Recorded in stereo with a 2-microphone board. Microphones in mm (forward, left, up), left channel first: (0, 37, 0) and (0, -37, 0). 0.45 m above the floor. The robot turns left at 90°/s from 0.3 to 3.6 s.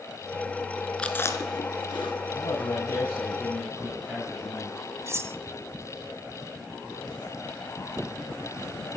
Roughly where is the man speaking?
Left.